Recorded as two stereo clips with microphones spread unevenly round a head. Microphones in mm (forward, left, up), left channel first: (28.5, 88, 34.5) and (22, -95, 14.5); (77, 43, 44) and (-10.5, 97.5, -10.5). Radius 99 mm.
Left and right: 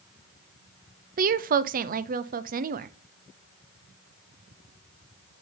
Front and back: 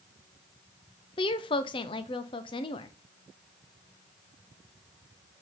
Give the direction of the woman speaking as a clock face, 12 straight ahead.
2 o'clock.